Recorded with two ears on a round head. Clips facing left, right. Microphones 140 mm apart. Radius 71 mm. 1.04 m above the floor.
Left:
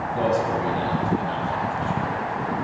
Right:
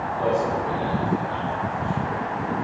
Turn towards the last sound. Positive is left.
turn(degrees=75)  # may be behind; listen again after turning